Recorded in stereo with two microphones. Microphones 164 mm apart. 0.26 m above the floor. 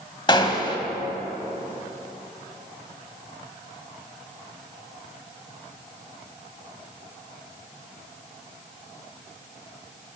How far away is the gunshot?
About 1.0 m.